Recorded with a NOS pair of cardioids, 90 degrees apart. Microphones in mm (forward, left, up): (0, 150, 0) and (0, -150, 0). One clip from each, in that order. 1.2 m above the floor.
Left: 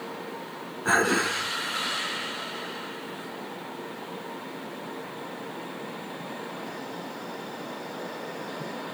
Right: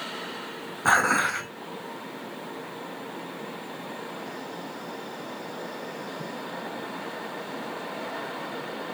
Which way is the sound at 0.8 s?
70° right.